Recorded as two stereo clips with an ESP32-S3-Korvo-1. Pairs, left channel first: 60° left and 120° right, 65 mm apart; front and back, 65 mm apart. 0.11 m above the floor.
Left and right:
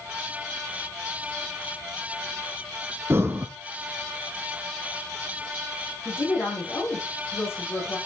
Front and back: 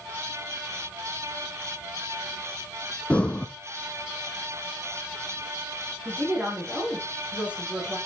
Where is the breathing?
70° right, 1.4 m.